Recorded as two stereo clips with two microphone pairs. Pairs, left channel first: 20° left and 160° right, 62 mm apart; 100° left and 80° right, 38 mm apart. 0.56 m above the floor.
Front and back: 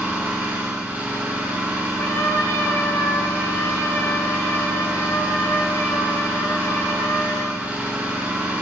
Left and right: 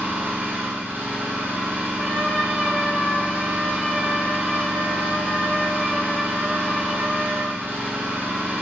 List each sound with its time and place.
0.0 s an engine running: 100° right, 3.5 m
2.0 s a trumpet: 5° left, 3 m